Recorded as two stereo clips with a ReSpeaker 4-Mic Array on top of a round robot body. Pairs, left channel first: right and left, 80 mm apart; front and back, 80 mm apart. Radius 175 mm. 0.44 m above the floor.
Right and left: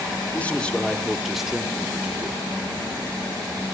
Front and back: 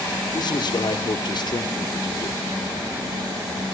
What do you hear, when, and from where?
0.3 s a man speaking: 20° right, 1.9 m; by 2.4 s 35° left, 1.5 m